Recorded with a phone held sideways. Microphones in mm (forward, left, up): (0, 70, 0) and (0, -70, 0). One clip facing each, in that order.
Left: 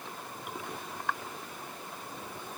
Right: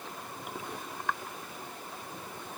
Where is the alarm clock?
No alarm clock in this recording.